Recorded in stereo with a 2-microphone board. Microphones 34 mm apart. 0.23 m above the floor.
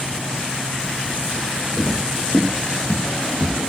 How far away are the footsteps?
About 5.5 m.